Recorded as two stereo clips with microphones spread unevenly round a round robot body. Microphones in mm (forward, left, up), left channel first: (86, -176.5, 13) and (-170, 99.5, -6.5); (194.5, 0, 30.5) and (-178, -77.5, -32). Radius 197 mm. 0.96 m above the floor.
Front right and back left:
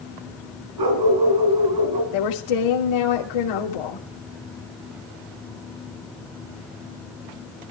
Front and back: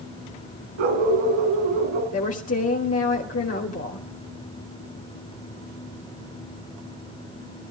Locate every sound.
0.8 s a dog barking: 165° left, 4.5 m
2.1 s a woman speaking: 45° right, 3 m